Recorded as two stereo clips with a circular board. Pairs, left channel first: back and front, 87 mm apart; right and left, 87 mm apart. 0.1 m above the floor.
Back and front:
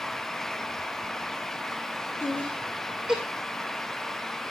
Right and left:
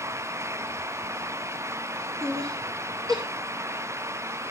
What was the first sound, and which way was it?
Laughter, 120° left.